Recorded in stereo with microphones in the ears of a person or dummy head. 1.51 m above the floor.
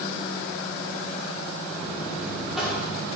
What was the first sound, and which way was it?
A buzzer, centre (ahead or behind).